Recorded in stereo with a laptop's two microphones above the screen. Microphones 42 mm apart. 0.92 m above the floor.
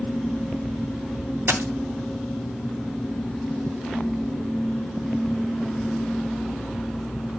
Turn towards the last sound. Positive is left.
turn(degrees=-65)  # may be behind; listen again after turning